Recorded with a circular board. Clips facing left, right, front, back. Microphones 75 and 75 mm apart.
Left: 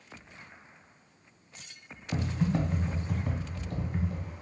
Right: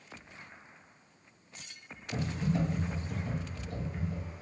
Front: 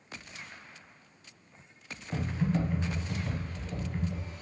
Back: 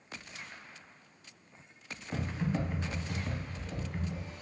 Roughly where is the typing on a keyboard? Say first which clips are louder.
Left 3 dB, front 3 dB; left.